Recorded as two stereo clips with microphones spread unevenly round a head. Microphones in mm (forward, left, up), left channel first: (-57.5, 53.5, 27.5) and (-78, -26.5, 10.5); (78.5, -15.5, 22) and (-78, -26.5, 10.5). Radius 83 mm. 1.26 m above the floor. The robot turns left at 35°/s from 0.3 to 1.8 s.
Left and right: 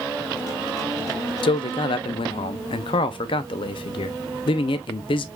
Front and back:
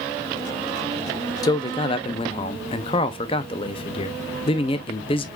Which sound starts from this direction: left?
A man speaking, at 1.4 s.